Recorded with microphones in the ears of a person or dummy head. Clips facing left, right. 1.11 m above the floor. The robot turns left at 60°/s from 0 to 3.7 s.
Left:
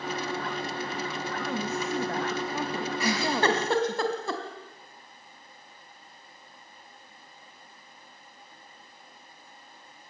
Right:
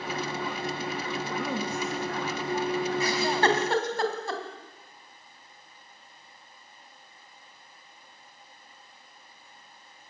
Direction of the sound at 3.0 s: 55° left (ahead or behind).